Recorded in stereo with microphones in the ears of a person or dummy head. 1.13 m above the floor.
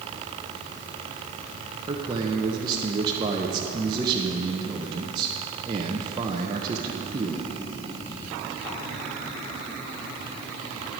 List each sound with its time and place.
1.9 s a man speaking: 20° right (ahead or behind), 1.1 m